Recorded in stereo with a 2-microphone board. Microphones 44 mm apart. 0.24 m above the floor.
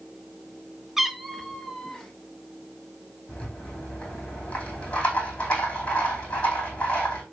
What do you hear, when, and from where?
1.0 s a cat meowing: 5° right (ahead or behind), 0.5 m; by 2.1 s 10° left (ahead or behind), 1.8 m
3.3 s a rattle: 30° left (ahead or behind), 4.5 m